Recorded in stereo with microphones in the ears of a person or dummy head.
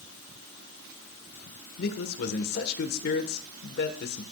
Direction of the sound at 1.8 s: 60° left (ahead or behind).